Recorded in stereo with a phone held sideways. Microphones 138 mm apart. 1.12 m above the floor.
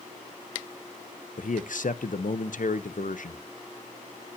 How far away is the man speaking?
About 0.8 m.